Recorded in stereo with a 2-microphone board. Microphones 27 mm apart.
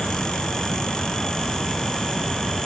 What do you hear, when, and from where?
Only background noise.